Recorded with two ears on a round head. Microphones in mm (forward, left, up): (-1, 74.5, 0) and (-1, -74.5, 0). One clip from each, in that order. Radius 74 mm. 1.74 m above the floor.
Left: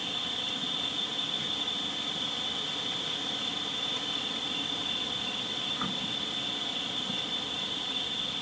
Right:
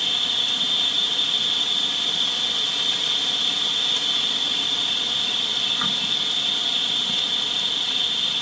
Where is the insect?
70° right (ahead or behind).